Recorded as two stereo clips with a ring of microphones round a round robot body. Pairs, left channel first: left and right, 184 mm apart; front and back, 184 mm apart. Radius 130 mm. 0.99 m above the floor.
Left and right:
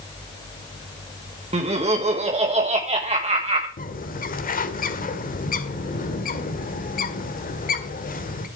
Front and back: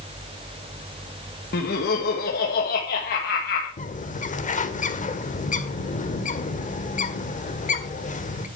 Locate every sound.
1.5 s laughter: 40° right, 1.5 m
3.8 s a bird: 50° left, 1.6 m